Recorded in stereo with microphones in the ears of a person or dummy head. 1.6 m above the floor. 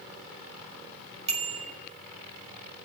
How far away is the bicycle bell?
About 5 m.